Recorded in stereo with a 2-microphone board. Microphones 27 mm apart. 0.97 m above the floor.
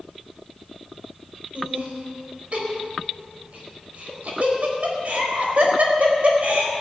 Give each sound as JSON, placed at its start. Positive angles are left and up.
{"t": 1.6, "sound": "laughter", "side_deg": -55, "distance_m": 4.5}